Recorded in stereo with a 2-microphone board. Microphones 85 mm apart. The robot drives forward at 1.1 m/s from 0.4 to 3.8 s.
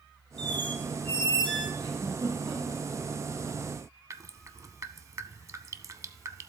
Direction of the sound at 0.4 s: 65° right (ahead or behind).